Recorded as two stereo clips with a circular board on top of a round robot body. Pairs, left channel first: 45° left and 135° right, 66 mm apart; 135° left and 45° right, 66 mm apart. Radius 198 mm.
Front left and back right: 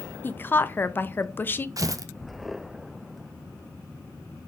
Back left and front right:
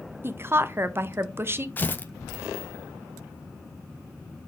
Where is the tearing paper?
165° right, 0.6 m.